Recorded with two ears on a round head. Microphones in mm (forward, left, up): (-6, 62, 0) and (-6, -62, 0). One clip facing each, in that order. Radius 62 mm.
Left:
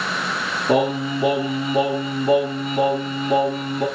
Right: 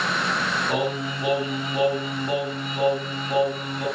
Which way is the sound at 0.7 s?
75° left (ahead or behind).